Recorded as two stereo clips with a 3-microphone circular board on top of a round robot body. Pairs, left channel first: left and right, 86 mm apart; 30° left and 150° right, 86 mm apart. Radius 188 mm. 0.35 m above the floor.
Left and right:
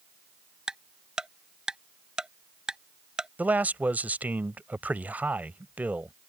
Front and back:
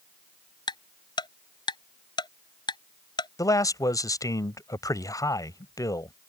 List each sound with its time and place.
0.7 s ticking: 10° right
3.4 s a man speaking: 20° right